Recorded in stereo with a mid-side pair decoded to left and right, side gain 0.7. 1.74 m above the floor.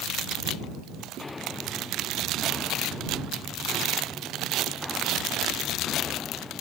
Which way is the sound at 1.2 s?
20° left.